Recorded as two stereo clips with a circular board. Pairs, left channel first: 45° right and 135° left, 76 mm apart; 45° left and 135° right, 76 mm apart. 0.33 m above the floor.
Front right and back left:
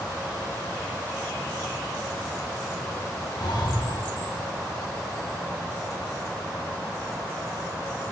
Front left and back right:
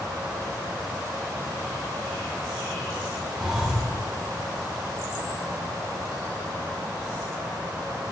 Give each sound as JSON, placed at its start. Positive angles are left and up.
{"t": 3.4, "sound": "breathing", "azimuth_deg": -55, "distance_m": 4.5}